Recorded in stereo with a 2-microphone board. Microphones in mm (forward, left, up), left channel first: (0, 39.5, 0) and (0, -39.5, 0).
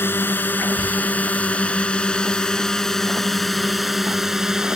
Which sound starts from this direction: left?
A drone, at 0.0 s.